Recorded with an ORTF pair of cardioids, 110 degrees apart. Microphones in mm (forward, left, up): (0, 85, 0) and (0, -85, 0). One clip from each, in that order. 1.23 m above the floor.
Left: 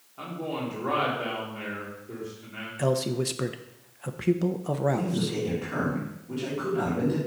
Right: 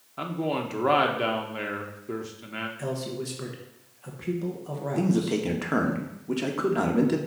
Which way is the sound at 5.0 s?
60° right.